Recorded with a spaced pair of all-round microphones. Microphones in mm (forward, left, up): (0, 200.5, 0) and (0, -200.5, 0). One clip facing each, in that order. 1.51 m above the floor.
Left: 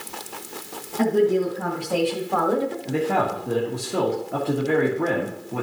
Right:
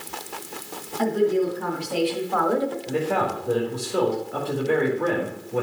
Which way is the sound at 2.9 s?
75° left (ahead or behind).